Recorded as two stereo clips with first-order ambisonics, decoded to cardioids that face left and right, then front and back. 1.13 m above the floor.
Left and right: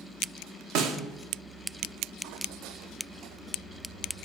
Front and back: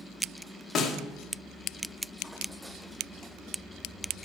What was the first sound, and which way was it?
A snare drum, 65° right.